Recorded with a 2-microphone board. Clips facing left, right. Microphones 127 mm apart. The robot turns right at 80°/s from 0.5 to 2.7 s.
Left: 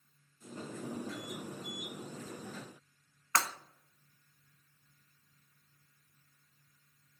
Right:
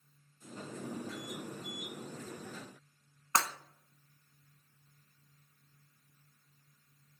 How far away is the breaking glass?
About 0.9 m.